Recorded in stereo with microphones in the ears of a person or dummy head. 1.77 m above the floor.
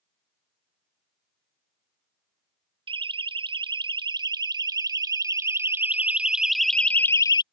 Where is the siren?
35° right (ahead or behind); by 7.4 s 20° left (ahead or behind).